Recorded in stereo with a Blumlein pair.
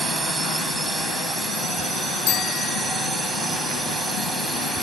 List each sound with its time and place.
0.0 s a drone: 15° right
2.3 s a bicycle bell: 35° left